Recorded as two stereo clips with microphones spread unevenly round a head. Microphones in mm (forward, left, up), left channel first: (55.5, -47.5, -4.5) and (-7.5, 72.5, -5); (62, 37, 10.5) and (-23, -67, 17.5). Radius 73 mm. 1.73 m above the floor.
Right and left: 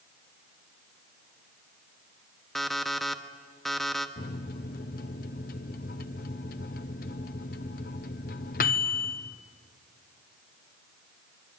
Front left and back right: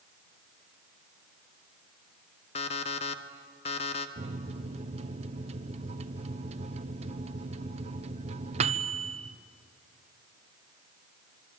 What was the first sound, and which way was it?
An alarm clock, 25° left.